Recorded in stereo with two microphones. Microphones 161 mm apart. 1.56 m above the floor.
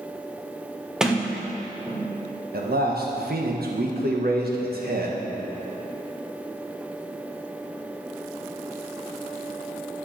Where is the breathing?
No breathing in this recording.